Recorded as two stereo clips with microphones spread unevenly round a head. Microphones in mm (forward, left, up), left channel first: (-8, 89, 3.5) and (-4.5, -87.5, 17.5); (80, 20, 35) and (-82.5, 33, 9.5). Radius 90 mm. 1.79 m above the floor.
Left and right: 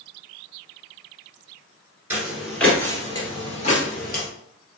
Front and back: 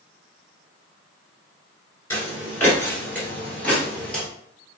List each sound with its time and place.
2.1 s footsteps: 35° right, 1.9 m; by 4.2 s 70° left, 2.5 m